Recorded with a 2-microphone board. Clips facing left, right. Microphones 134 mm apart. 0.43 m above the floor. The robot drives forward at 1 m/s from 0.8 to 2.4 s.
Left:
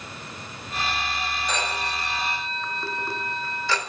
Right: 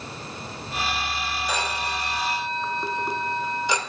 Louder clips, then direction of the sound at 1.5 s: Right 2 dB; 10° right (ahead or behind).